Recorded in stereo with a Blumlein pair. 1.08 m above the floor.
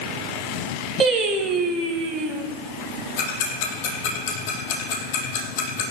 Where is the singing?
20° right, 3 m.